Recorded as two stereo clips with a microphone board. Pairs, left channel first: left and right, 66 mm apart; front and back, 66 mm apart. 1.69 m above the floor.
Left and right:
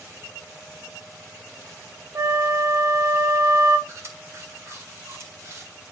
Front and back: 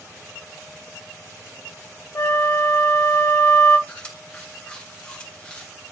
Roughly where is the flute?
Ahead right.